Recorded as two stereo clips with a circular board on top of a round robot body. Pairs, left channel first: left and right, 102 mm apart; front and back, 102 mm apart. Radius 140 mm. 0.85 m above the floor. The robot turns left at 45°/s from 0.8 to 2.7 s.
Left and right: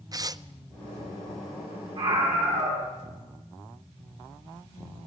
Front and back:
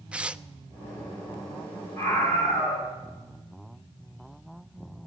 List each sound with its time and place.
0.1 s tearing paper: 110° right, 0.9 m
2.0 s a scream: 60° right, 9 m; by 2.9 s 90° right, 9 m